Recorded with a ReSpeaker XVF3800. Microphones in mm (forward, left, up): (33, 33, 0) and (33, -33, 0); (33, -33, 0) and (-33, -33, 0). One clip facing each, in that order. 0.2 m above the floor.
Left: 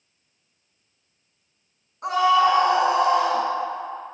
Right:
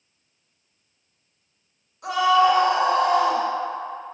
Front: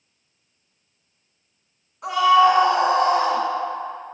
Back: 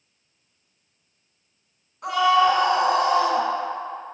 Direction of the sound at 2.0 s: 80° left.